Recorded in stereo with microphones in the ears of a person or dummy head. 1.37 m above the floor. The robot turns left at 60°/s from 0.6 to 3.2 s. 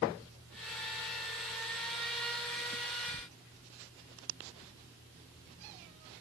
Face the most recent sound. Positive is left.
No sound to turn to.